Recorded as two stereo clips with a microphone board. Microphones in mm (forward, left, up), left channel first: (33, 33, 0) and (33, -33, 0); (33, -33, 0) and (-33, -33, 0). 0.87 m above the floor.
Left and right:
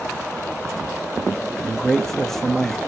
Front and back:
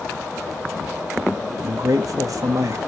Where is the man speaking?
175° left, 1.2 m.